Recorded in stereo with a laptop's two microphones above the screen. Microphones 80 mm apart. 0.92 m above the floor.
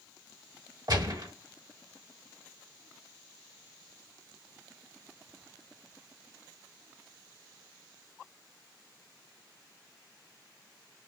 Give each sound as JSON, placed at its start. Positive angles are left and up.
{"t": 0.9, "sound": "a gunshot", "side_deg": -60, "distance_m": 1.2}